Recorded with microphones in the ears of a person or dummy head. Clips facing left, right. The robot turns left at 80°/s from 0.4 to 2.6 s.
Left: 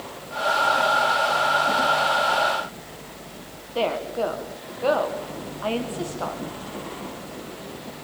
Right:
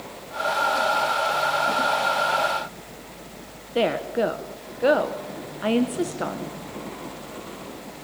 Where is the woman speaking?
20° right (ahead or behind), 1.1 m.